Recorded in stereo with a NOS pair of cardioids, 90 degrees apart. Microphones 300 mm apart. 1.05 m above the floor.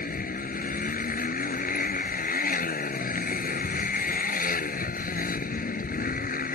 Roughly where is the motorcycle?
Ahead left.